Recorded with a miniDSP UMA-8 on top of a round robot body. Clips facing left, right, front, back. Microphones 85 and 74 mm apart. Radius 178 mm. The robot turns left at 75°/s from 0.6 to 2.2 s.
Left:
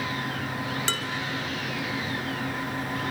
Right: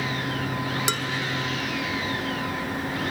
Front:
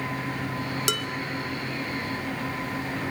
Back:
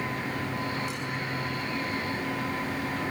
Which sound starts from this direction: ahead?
Dishes clattering, at 0.9 s.